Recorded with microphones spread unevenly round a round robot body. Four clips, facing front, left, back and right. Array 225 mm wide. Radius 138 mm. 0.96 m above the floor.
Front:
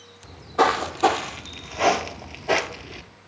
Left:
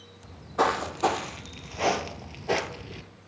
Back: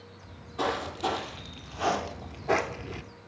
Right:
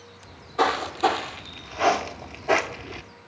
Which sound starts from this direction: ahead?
Footsteps, at 0.2 s.